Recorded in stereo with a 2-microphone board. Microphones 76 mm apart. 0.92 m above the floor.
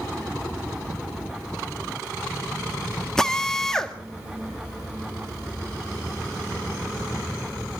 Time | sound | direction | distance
3.2 | a drill | 5° left (ahead or behind) | 1.8 m